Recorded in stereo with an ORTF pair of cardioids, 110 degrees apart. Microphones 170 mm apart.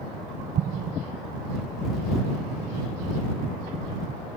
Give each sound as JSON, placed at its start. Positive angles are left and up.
{"t": 0.6, "sound": "an explosion", "azimuth_deg": -50}